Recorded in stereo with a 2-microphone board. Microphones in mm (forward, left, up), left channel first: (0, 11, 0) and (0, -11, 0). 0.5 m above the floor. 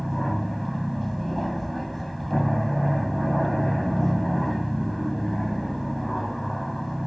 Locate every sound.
0.0 s an aircraft: 5° left (ahead or behind)